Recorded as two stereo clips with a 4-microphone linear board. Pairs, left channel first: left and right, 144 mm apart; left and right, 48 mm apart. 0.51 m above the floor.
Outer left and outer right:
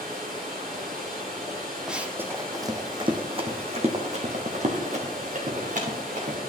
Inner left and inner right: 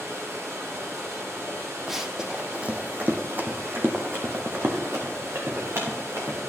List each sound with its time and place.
0.0 s running water: 85° right, 3.5 m
1.9 s running footsteps: 5° right (ahead or behind), 0.9 m; by 6.4 s 65° right (ahead or behind), 2.5 m